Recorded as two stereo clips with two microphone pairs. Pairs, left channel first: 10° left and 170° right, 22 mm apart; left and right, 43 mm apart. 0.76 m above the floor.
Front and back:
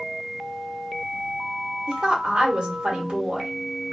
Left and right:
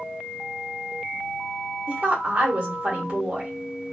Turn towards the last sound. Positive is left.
turn(degrees=-145)